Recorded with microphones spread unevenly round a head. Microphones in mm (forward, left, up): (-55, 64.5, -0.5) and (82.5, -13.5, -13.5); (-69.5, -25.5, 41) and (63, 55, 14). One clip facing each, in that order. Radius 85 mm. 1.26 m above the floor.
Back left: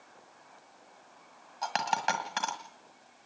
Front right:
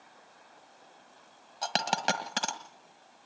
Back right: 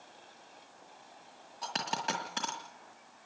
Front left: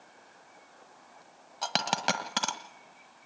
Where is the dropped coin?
10° left, 1.6 m.